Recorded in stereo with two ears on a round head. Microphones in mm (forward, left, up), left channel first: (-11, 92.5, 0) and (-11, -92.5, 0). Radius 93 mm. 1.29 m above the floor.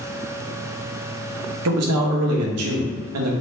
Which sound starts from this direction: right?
A man speaking, at 1.6 s.